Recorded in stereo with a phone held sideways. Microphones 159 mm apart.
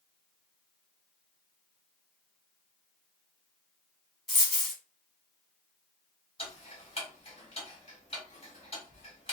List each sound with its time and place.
4.3 s a dropped coin: centre (ahead or behind), 1.6 m
6.4 s ticking: 35° left (ahead or behind), 1.5 m